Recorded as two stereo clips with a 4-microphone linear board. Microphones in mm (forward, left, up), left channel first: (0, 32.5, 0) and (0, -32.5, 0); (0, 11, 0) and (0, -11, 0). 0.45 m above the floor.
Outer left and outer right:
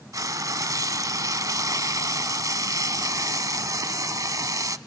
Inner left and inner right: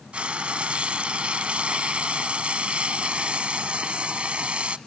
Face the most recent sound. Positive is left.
turn(degrees=-65)  # may be behind; listen again after turning